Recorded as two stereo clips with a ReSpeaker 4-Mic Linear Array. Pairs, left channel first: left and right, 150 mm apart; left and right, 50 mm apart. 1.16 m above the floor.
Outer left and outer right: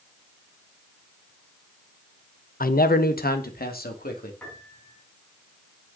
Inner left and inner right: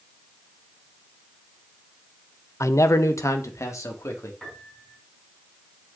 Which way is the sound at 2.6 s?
75° left (ahead or behind).